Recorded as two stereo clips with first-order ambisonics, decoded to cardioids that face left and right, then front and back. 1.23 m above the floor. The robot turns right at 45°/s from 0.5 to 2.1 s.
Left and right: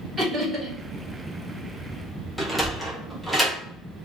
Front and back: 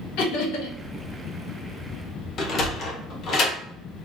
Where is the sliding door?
5° left, 1.0 m.